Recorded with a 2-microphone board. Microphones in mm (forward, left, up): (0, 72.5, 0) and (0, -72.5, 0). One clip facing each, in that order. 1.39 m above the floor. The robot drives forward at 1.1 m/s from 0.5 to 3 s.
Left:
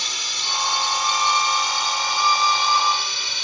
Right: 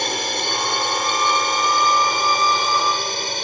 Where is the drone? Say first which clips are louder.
Right 11 dB; 60° right (ahead or behind); by 3.4 s 50° right (ahead or behind).